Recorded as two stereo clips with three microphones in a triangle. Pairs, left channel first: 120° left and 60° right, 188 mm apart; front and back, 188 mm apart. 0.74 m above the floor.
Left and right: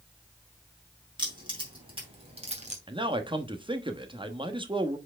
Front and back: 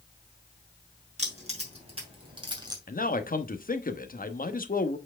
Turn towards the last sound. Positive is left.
turn(degrees=-5)